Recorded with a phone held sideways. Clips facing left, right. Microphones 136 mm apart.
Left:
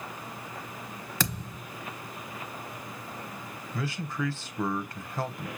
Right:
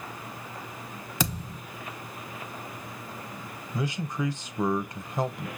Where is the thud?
10° right (ahead or behind), 1.1 m.